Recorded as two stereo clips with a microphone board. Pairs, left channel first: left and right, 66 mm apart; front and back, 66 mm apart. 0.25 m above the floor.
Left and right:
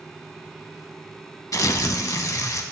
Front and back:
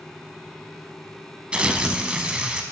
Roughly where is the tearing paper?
Left.